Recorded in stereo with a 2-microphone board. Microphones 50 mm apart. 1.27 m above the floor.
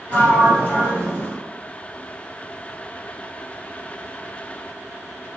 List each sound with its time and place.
0.1 s a sliding door: 35° left (ahead or behind), 1.8 m